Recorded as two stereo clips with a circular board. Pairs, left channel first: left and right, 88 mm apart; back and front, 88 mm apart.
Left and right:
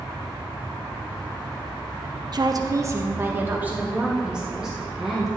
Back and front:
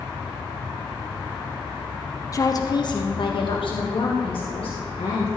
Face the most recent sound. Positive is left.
turn(degrees=-175)